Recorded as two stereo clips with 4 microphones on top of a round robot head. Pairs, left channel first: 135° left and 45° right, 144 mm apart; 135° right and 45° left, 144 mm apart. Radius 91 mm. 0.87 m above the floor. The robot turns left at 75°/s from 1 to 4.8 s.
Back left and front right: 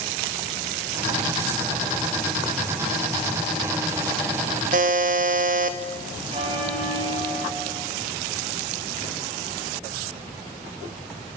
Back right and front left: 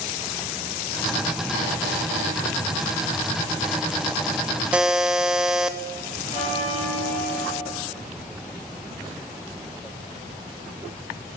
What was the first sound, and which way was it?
A buzzer, 35° right.